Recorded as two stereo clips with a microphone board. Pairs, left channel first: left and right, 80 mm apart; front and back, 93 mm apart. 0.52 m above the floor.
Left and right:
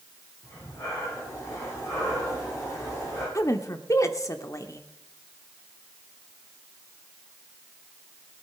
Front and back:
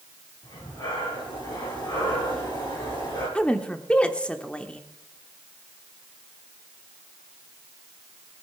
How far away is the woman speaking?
About 1.0 m.